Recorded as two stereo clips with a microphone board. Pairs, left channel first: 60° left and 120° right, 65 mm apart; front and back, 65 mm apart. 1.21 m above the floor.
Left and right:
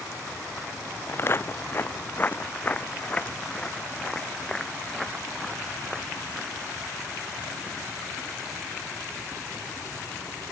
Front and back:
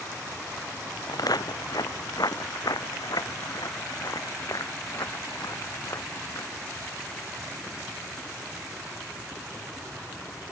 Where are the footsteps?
10° left; by 6.5 s 40° right.